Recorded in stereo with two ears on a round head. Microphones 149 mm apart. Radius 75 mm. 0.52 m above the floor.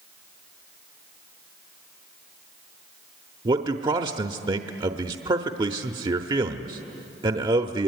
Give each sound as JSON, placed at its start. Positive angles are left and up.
{"t": 3.5, "sound": "a man speaking", "side_deg": -30, "distance_m": 0.9}